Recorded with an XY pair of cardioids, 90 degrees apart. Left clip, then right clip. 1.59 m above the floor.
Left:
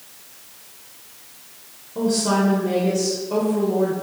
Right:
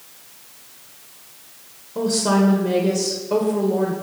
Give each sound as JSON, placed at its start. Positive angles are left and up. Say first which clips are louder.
{"t": 1.9, "sound": "a woman speaking", "louder": "right 1 dB", "azimuth_deg": -25, "distance_m": 1.5}